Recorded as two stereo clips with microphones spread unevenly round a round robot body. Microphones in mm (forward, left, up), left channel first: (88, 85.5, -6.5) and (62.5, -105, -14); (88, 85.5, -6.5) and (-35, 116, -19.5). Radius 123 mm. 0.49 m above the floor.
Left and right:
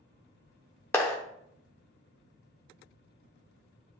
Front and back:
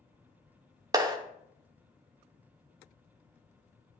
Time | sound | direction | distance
0.9 | a clap | 160° left | 0.8 m